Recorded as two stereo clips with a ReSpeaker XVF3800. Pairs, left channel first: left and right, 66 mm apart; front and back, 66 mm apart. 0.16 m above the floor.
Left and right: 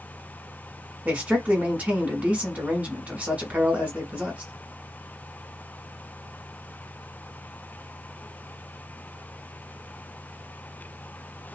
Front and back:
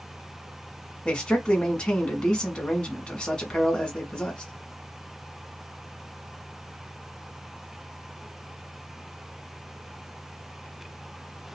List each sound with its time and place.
1.1 s a man speaking: 55° right, 1.1 m